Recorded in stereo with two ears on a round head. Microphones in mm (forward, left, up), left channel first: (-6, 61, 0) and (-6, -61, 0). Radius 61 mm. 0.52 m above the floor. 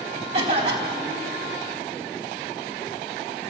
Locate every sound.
0.3 s a cough: 45° right (ahead or behind), 4 m